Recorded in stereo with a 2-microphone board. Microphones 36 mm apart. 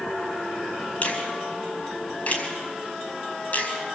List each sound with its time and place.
1.0 s a finger snap: 45° left (ahead or behind), 5.5 m